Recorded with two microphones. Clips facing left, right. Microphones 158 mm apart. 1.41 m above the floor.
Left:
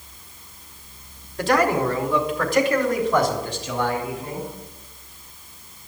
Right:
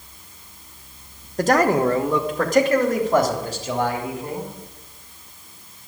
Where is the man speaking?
45° right (ahead or behind), 1.1 m.